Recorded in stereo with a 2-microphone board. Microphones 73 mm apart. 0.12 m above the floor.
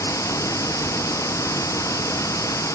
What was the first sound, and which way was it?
Running water, 45° left (ahead or behind).